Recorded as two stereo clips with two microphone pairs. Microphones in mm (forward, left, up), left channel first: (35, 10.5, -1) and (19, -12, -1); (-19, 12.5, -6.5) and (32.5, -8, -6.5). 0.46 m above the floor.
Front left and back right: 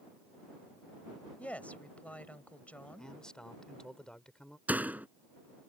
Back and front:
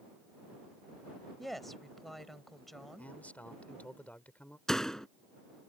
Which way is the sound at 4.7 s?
120° right.